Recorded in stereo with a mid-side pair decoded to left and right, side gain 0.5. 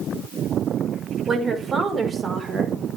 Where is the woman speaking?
35° right, 5 m; by 2.8 s 40° right, 4 m.